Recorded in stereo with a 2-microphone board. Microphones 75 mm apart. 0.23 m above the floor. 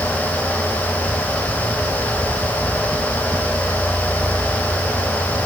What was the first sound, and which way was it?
Only background noise.